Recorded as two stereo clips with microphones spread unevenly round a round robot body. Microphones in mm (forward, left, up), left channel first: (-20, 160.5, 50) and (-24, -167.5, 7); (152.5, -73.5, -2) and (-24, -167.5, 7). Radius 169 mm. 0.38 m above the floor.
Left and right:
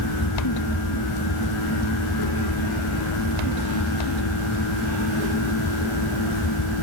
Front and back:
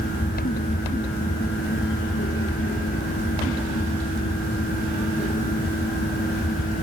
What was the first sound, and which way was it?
Only background noise.